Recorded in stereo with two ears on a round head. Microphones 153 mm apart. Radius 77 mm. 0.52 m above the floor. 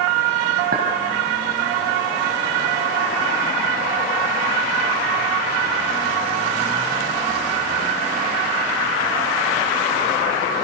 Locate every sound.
0.7 s a clink: 55° right (ahead or behind), 3.5 m